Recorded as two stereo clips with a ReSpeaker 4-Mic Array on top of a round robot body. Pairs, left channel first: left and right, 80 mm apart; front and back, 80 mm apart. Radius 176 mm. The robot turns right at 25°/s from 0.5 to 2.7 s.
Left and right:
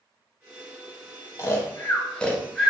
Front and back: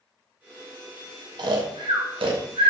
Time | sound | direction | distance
1.4 | snoring | 145° left | 0.5 m